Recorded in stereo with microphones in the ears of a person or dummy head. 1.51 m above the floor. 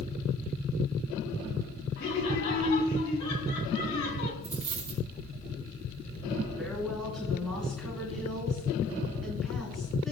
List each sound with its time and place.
2.0 s laughter: 55° left (ahead or behind), 4.5 m
4.4 s a dropped coin: 10° right (ahead or behind), 4.5 m
6.6 s a woman speaking: centre (ahead or behind), 3.5 m